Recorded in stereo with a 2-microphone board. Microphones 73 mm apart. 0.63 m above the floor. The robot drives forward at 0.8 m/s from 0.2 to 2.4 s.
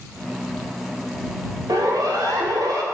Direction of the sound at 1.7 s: 65° right (ahead or behind).